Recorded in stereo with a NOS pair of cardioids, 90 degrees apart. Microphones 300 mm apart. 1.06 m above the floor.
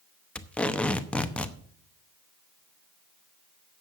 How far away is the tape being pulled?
About 0.8 m.